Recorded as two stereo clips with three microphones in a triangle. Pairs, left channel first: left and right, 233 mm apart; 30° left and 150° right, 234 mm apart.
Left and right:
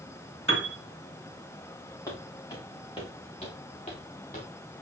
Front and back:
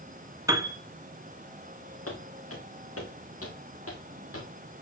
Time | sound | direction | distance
0.5 | a piano | 75° right | 1.6 m
2.1 | footsteps | 15° left | 5 m